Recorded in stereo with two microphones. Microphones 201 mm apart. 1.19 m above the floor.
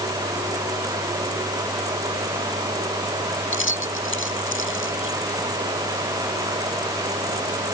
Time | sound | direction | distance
3.5 | keys jangling | 90° left | ?